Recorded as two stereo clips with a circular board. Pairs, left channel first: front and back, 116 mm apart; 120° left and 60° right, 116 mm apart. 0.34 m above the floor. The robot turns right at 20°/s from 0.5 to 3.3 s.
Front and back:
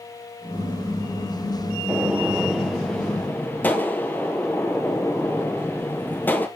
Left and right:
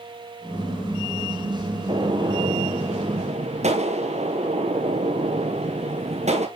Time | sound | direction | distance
1.9 | a gunshot | 105° right | 1.8 m